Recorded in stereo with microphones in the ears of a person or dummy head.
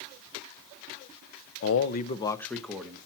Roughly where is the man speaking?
Left.